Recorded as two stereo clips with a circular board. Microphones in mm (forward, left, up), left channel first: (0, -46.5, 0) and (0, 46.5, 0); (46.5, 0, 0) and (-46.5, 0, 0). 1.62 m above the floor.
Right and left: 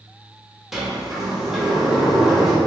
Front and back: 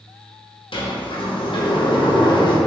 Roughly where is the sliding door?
Ahead.